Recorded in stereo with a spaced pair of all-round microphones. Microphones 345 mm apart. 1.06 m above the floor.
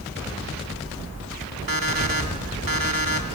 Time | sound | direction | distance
1.7 | an alarm clock | 75° right (ahead or behind) | 2 m